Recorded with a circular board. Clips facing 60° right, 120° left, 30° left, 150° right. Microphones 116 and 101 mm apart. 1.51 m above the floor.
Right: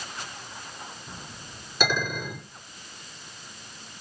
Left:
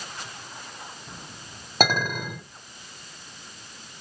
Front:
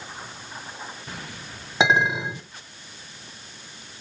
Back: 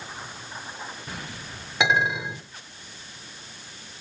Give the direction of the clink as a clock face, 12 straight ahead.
9 o'clock.